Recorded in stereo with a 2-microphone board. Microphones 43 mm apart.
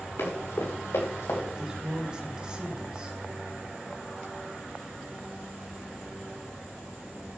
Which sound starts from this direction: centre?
A woman speaking, at 1.6 s.